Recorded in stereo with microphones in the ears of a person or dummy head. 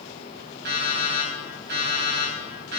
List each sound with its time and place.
0.7 s an alarm clock: 65° right (ahead or behind), 4.5 m